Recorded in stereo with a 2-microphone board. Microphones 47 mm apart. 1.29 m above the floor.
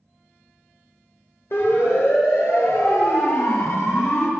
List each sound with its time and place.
1.5 s a siren: 65° left (ahead or behind), 6 m; by 4.3 s 75° left (ahead or behind), 5 m